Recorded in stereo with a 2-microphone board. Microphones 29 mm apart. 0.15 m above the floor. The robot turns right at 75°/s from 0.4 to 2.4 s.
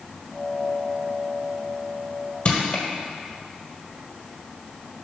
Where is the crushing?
45° left (ahead or behind), 1.4 m.